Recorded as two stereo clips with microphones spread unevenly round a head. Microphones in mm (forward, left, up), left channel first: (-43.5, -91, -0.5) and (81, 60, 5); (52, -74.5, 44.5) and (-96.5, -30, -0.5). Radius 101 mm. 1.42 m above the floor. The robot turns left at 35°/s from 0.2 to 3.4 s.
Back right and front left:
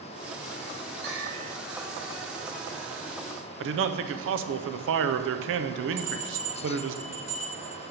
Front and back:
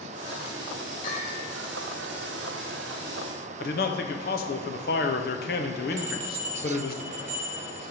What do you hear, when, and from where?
1.0 s a bell: 35° left, 4 m; by 1.5 s 20° left, 4 m
3.6 s a man speaking: 30° left, 0.7 m
6.0 s a bell: 105° left, 3 m